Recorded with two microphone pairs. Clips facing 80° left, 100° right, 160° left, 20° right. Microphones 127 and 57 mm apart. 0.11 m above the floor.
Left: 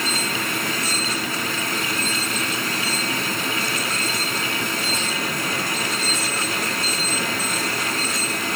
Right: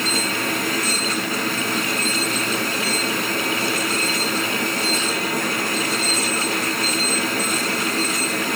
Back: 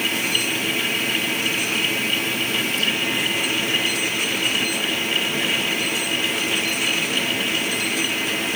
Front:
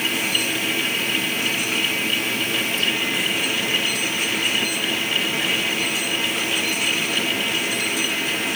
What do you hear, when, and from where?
Only background noise.